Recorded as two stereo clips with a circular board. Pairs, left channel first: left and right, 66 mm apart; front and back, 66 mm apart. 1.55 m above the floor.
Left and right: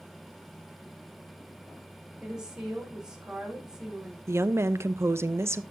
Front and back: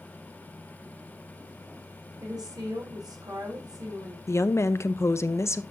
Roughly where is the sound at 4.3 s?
Ahead right.